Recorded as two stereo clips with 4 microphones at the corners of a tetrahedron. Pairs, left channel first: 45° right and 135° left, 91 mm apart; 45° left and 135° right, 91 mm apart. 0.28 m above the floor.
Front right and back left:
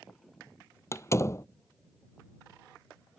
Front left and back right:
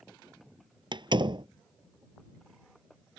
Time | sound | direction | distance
0.9 | a door slam | 105° right | ?